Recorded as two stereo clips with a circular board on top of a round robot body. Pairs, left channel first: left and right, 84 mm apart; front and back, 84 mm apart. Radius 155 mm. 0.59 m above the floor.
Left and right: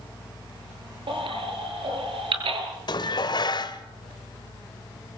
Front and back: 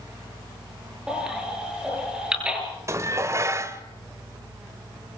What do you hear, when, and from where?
1.1 s a baby crying: 100° right, 7 m
2.9 s dishes clattering: 125° left, 1.9 m